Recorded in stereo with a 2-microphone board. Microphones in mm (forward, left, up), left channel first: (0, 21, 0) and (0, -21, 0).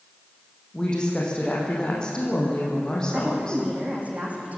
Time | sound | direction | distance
0.7 | a woman speaking | 15° left (ahead or behind) | 4.5 m
3.1 | a woman speaking | 30° right (ahead or behind) | 6 m